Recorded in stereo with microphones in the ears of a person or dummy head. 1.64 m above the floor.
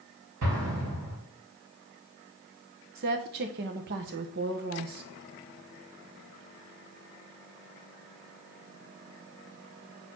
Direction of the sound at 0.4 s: 70° right (ahead or behind).